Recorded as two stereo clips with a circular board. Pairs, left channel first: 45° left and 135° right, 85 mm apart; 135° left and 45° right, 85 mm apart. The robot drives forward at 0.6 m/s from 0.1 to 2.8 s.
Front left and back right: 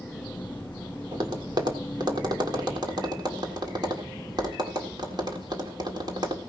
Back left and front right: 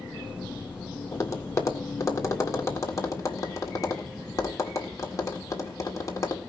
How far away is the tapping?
About 2.5 m.